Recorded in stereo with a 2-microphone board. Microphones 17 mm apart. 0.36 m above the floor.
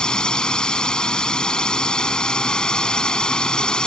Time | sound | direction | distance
0.0 | a drone | 55° left (ahead or behind) | ?